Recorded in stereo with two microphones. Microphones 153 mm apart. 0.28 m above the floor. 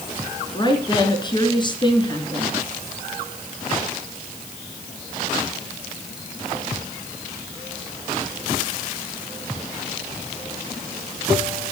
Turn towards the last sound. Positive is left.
turn(degrees=30)  # may be behind; listen again after turning